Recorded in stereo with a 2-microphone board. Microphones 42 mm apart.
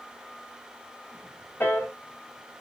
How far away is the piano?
About 2 m.